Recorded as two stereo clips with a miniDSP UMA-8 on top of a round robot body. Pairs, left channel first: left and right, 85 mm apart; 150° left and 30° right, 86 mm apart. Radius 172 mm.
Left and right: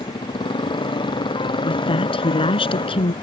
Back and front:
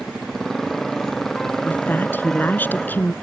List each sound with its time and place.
0.0 s a motorcycle: 60° left; by 3.2 s 65° left
1.6 s a woman speaking: 80° left